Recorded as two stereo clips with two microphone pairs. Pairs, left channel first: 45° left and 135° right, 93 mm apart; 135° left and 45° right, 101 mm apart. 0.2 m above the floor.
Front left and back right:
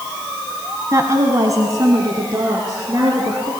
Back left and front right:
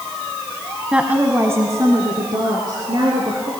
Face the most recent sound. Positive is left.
turn(degrees=-85)